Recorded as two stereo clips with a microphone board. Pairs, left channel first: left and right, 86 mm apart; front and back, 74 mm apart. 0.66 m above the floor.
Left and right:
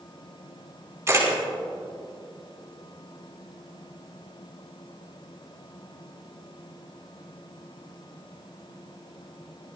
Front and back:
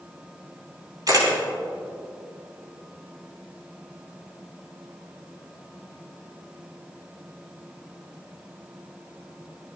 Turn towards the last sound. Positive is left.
turn(degrees=-150)